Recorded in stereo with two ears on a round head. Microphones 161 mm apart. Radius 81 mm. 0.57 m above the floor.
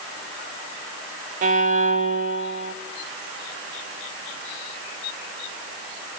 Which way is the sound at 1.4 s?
45° right (ahead or behind).